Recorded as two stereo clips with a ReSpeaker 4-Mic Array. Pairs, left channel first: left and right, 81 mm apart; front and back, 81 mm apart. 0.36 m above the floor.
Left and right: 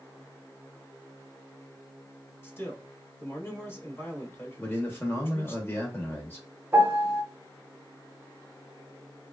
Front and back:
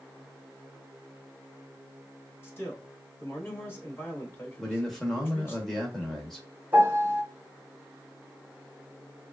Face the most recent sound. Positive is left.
turn(degrees=-140)